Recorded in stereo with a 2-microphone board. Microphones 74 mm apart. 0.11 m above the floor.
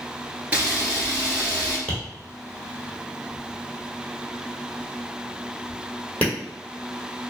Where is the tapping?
20° left (ahead or behind), 1.5 m.